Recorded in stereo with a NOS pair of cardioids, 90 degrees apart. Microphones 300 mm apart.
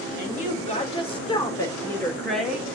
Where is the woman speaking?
25° left, 4 m; by 2.7 s 5° right, 3 m.